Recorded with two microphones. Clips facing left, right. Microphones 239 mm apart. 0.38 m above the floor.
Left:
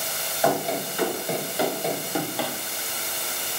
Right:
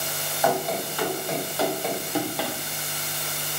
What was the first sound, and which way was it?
Running footsteps, 25° left (ahead or behind).